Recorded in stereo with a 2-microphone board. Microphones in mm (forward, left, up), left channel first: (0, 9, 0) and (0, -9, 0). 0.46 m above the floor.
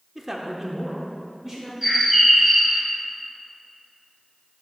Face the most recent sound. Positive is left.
turn(degrees=-10)  # may be behind; listen again after turning